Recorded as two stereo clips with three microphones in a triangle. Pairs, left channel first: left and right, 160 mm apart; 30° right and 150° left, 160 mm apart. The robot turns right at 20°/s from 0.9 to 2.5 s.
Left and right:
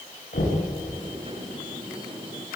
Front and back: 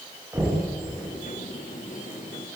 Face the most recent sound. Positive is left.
turn(degrees=110)